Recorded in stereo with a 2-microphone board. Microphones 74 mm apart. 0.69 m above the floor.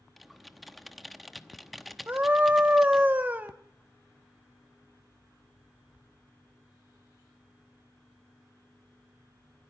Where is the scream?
25° right (ahead or behind), 0.9 m.